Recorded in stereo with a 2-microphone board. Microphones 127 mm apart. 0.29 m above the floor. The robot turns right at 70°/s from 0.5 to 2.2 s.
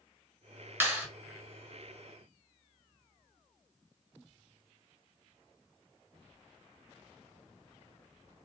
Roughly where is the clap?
Centre.